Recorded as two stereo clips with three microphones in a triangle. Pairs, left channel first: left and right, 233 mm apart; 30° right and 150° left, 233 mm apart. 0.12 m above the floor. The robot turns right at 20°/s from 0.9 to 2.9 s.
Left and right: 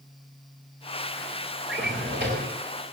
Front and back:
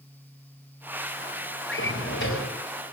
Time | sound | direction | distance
1.7 | a drawer | 60° right | 4.5 m